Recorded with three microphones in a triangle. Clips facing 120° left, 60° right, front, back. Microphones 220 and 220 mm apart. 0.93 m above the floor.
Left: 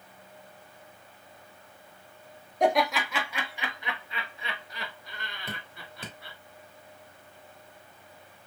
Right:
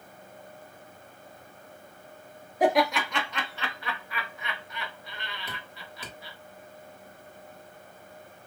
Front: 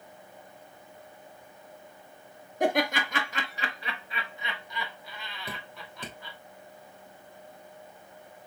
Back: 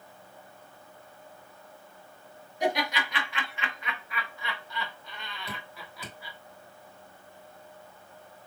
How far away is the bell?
No bell in this recording.